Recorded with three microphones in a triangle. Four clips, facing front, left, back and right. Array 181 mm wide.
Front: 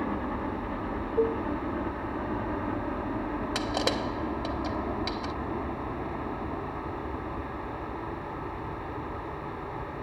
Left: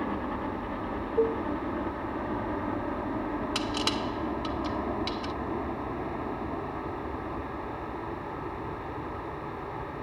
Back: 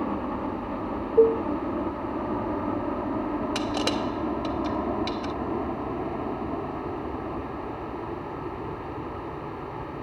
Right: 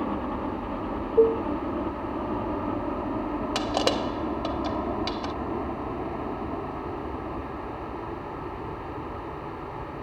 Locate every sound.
0.0 s a helicopter: 150° right; by 10.1 s 165° right
1.2 s dishes clattering: 155° right
3.5 s crushing: 85° right